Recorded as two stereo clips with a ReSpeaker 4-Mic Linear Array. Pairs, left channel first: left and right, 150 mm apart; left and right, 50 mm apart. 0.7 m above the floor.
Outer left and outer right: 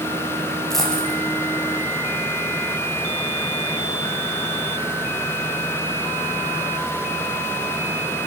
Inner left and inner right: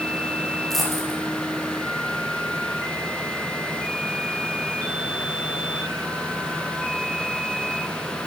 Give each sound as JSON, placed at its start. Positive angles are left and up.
{"t": 0.7, "sound": "a dropped coin", "side_deg": 0, "distance_m": 7.0}